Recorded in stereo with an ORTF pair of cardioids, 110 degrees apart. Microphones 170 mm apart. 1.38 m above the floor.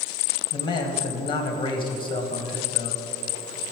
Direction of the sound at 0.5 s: 25° left.